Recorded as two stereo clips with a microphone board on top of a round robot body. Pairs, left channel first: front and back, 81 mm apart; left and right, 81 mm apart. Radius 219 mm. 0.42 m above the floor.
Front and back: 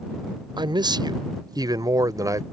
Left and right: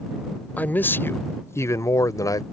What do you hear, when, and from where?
0.6 s a man speaking: 160° left; by 2.4 s 130° left